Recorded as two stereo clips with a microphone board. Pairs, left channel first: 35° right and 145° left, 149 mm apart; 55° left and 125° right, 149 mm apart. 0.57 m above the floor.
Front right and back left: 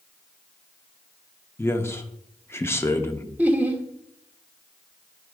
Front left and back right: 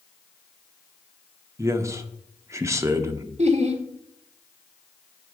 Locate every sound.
1.6 s a man speaking: 85° right, 0.6 m
3.4 s laughter: 140° right, 1.0 m